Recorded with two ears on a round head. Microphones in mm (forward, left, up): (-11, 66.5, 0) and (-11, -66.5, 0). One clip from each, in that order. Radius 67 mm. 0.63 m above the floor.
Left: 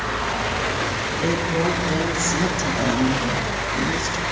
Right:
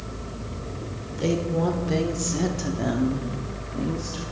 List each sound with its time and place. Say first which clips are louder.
1.2 s a woman speaking: left 1 dB; 5° left (ahead or behind), 2 m; by 4.2 s 50° left (ahead or behind), 1.3 m